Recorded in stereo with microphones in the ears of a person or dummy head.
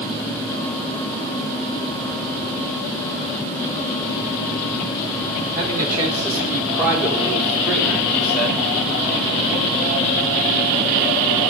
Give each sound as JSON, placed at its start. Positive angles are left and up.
{"t": 5.5, "sound": "a man speaking", "side_deg": -20, "distance_m": 6.5}